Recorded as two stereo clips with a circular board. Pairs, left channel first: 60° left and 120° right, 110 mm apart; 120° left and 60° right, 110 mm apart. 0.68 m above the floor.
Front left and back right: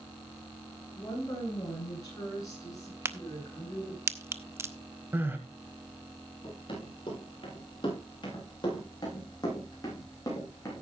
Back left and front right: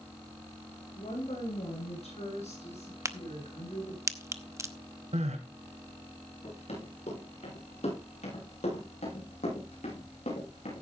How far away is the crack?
About 0.8 m.